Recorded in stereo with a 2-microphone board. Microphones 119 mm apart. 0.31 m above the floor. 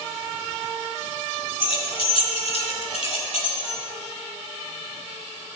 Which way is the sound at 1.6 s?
45° left (ahead or behind).